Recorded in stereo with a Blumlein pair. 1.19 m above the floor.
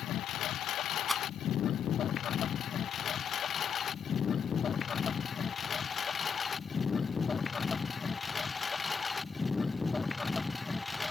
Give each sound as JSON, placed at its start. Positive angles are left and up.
{"t": 0.0, "sound": "a lawn mower", "azimuth_deg": 30}
{"t": 1.1, "sound": "a rattle", "azimuth_deg": 0}